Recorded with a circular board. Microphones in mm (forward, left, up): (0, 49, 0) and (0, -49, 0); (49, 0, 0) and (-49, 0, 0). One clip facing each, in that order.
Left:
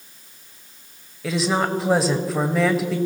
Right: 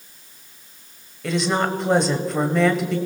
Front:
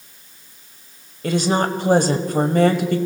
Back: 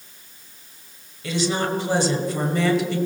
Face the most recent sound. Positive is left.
turn(degrees=0)